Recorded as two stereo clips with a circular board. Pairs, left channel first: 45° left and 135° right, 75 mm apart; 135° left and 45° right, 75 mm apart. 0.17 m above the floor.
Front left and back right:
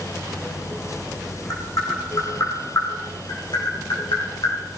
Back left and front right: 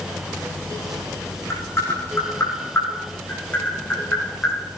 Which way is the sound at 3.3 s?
65° left.